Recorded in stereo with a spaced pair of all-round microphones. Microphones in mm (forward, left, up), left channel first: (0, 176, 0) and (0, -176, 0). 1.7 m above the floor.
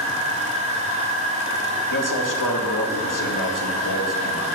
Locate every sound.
0.0 s a machine running: 20° right (ahead or behind), 3 m
1.9 s a man speaking: 60° left (ahead or behind), 1.4 m